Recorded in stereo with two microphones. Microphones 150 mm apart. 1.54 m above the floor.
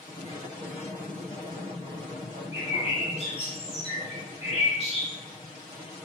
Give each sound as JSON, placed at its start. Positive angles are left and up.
{"t": 2.5, "sound": "a bird", "side_deg": 45, "distance_m": 2.0}